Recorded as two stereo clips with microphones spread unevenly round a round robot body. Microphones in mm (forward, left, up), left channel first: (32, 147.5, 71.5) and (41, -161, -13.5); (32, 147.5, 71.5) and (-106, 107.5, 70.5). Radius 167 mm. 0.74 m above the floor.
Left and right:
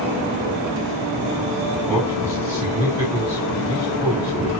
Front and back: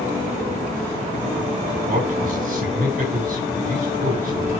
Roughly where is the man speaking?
Behind.